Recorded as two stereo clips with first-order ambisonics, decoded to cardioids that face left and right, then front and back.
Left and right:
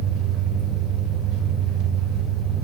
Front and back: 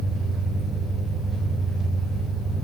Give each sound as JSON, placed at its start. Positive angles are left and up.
{"t": 0.0, "sound": "an engine running", "azimuth_deg": -110, "distance_m": 1.5}